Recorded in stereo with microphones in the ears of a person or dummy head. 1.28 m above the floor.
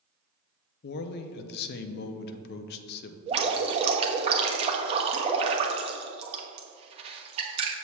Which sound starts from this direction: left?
A man speaking, at 0.8 s.